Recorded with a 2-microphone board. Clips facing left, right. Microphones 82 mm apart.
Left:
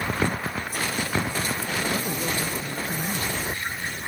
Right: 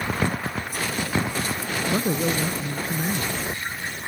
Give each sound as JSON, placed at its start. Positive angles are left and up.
{"t": 1.9, "sound": "a man speaking", "side_deg": -30}